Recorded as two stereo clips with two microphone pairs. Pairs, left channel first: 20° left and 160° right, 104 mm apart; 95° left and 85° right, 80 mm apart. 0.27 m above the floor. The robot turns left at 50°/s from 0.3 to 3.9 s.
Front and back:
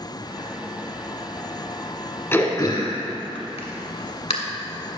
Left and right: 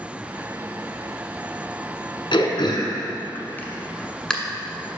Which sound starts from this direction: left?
Throat clearing, at 2.3 s.